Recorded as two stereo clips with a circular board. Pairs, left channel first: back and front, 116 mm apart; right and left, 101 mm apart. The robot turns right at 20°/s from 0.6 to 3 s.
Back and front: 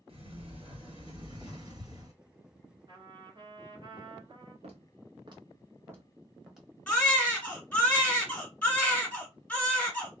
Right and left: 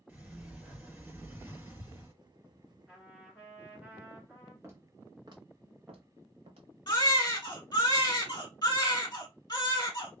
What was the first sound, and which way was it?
A sliding door, 15° left.